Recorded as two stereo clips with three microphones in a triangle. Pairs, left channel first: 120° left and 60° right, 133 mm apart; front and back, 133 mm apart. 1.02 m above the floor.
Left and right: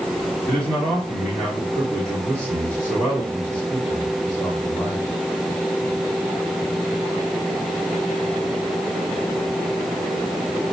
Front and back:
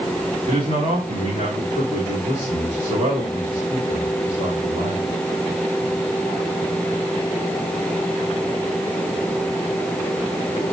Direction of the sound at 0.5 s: 160° right.